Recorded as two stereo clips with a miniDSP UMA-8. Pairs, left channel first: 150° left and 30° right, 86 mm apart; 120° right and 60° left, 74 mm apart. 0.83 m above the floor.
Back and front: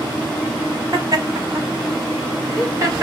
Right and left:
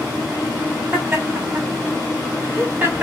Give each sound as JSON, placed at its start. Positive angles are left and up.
{"t": 0.9, "sound": "laughter", "azimuth_deg": 10, "distance_m": 1.3}